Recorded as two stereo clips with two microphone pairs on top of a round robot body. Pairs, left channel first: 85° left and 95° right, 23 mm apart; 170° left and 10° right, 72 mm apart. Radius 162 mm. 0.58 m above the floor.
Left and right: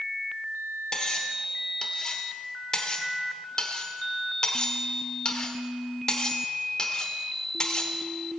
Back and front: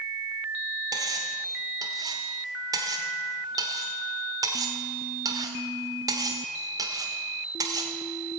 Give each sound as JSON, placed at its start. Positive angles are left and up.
{"t": 0.9, "sound": "cutlery clinking", "azimuth_deg": 30, "distance_m": 1.3}